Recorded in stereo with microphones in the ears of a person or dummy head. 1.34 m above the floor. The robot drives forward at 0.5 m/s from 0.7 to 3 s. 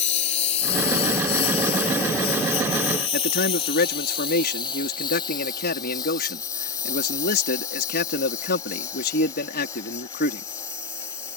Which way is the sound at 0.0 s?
35° left (ahead or behind).